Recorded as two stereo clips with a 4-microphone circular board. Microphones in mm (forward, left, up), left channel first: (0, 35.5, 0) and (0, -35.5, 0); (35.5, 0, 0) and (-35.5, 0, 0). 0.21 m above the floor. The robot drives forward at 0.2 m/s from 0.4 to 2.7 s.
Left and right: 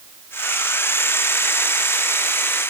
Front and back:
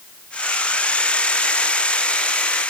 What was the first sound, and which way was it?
Only background noise.